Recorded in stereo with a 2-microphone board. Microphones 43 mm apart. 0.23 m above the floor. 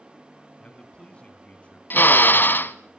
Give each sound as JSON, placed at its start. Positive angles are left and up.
{"t": 0.6, "sound": "a man speaking", "side_deg": 30, "distance_m": 2.5}
{"t": 1.9, "sound": "a drill", "side_deg": 55, "distance_m": 1.1}